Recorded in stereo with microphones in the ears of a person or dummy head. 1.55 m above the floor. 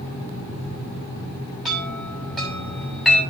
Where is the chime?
Centre (ahead or behind), 7.5 m.